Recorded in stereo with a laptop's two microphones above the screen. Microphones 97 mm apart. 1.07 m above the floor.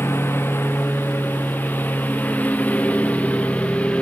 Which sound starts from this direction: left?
A lawn mower, at 0.0 s.